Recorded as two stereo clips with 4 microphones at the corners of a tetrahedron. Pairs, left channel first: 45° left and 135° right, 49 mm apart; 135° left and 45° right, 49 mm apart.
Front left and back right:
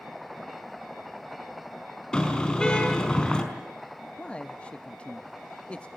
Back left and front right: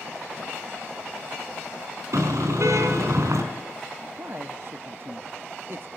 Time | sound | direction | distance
2.1 | a car horn | 30° right | 4.5 m
4.2 | a man speaking | 20° right | 0.9 m